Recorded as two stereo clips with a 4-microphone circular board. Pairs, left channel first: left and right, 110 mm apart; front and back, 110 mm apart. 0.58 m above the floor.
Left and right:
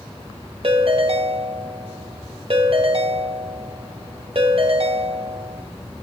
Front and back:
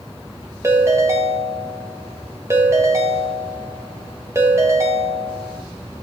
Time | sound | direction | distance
0.6 | a ringtone | 120° right | 1.6 m